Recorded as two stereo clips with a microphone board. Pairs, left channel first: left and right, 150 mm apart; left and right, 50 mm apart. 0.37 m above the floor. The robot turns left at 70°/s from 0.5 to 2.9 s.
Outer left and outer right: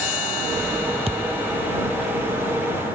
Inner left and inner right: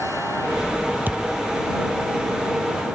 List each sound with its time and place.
1.1 s a thud: 40° right (ahead or behind); by 1.5 s 10° right (ahead or behind)